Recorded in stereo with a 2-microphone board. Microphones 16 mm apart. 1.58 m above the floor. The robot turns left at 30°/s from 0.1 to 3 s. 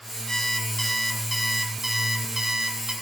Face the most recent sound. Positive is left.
turn(degrees=-60)